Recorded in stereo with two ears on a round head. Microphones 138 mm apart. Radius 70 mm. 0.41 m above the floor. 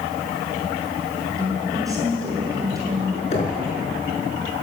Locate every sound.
1.4 s a woman speaking: 25° right (ahead or behind), 6.5 m
3.3 s knocking: 40° left (ahead or behind), 5 m